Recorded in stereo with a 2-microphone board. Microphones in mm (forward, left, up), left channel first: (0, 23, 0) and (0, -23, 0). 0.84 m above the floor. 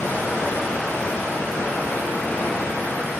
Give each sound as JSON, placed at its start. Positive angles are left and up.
{"t": 0.0, "sound": "running water", "side_deg": 60, "distance_m": 4.0}